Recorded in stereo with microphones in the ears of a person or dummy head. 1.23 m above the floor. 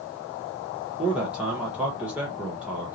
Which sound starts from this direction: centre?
A man speaking, at 1.0 s.